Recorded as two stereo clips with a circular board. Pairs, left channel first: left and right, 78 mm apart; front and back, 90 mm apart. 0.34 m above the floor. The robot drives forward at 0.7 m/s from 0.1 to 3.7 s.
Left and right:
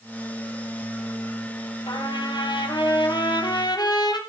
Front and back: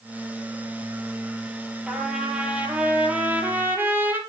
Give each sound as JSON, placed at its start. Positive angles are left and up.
{"t": 1.9, "sound": "a trumpet", "azimuth_deg": 95, "distance_m": 4.0}